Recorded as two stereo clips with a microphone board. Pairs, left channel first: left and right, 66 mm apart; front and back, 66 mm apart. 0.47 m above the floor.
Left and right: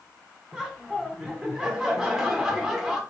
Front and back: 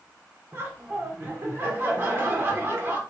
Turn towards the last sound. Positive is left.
turn(degrees=-165)